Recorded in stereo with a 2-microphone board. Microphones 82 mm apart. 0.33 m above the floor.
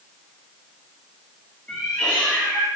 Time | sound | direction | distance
1.7 | a cat meowing | 20° left (ahead or behind) | 1.7 m